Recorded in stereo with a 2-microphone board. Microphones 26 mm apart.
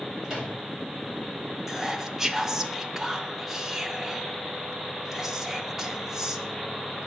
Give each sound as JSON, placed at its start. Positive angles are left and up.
{"t": 0.2, "sound": "a microwave", "side_deg": -20, "distance_m": 2.5}
{"t": 1.7, "sound": "whispering", "side_deg": -15, "distance_m": 0.7}